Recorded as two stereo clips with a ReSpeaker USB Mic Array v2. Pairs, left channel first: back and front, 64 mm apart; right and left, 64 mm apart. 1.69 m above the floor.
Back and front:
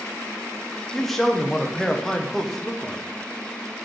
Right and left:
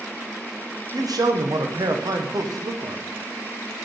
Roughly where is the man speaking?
Left.